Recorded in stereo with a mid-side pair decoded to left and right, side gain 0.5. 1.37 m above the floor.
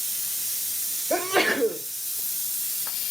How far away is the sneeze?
About 2 m.